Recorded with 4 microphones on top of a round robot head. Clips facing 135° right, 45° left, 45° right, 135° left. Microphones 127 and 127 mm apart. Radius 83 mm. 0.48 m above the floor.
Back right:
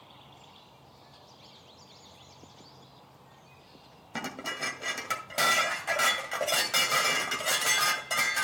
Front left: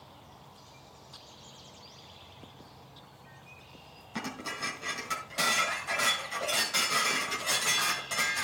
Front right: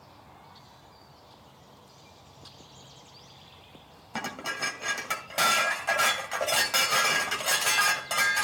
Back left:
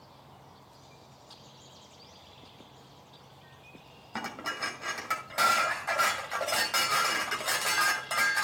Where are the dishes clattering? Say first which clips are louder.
Back right 1 dB, front right 2 dB; 120° right, 1.9 m.